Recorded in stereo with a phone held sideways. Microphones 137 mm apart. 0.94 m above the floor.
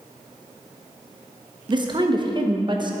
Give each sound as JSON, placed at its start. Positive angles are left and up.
{"t": 1.7, "sound": "a woman speaking", "side_deg": -35, "distance_m": 0.8}